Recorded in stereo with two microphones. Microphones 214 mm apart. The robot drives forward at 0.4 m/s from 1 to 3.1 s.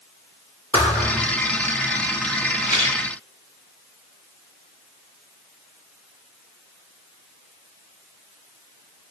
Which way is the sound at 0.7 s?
5° left (ahead or behind).